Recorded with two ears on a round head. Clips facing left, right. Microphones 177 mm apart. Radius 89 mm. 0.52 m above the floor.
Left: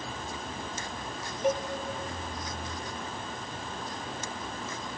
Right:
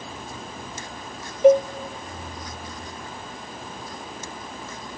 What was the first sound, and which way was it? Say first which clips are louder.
A cowbell: right 14 dB; 65° right (ahead or behind).